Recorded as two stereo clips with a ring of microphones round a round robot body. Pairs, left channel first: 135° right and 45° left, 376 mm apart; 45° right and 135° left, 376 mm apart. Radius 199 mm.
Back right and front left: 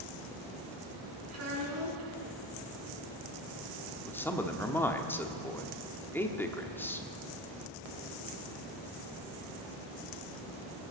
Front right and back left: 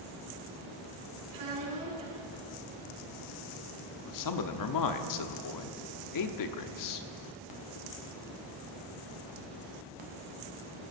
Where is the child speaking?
95° left, 6 m.